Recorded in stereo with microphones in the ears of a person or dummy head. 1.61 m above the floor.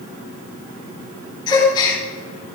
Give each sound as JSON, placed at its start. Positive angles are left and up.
{"t": 1.5, "sound": "a gasp", "side_deg": 25, "distance_m": 5.0}